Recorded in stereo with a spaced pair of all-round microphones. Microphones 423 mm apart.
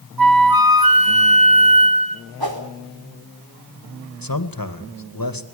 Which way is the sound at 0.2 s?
55° right (ahead or behind).